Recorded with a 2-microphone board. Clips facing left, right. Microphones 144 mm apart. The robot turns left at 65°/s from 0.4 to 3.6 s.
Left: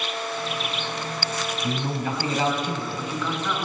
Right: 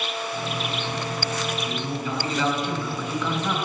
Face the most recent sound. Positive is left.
turn(degrees=-40)